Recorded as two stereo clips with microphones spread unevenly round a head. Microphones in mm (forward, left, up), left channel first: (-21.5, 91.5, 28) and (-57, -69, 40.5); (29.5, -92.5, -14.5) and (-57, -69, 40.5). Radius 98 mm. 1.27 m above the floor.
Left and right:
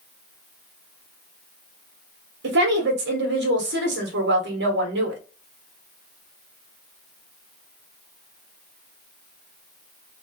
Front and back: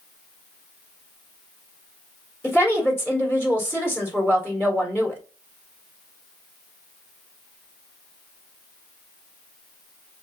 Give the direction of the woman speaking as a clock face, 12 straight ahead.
4 o'clock.